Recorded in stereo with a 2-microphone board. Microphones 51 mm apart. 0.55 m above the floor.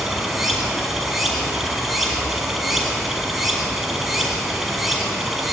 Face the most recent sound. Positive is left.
turn(degrees=-5)  # may be behind; listen again after turning